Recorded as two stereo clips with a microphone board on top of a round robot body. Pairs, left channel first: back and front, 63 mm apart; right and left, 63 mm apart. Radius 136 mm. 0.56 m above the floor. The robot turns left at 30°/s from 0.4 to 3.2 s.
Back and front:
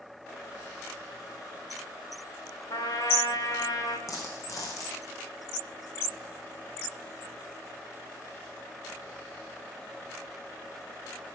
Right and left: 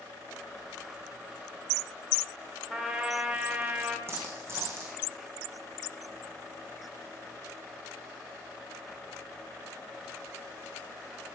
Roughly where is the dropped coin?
Behind left.